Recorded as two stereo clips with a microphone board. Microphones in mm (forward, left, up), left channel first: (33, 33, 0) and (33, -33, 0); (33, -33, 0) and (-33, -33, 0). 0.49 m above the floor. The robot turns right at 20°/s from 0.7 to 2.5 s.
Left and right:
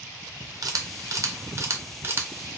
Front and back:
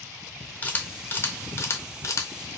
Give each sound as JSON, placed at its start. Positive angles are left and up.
{"t": 0.6, "sound": "a camera shutter", "azimuth_deg": -65, "distance_m": 0.6}